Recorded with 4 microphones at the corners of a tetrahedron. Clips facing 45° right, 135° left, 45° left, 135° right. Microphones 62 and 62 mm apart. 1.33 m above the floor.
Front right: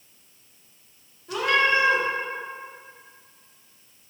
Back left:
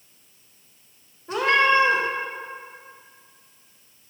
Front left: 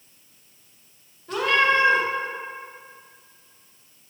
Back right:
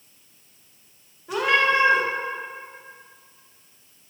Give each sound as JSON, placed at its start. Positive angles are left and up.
{"t": 1.3, "sound": "a cat meowing", "azimuth_deg": 155, "distance_m": 0.6}